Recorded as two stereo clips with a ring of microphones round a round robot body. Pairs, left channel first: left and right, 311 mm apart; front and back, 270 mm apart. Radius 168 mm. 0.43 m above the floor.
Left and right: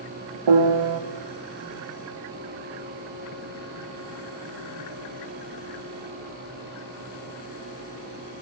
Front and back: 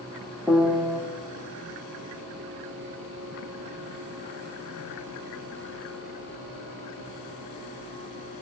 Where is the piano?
95° right, 1.4 m.